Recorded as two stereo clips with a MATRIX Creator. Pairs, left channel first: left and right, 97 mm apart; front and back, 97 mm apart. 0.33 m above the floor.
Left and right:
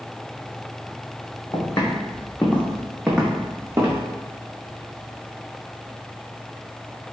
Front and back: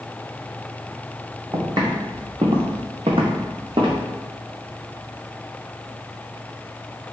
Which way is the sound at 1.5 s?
135° left.